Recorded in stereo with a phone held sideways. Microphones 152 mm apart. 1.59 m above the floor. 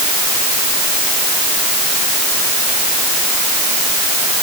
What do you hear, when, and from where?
Only background noise.